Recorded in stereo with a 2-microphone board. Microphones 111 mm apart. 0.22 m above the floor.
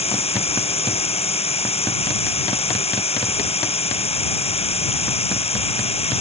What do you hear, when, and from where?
0.0 s running water: 65° left (ahead or behind)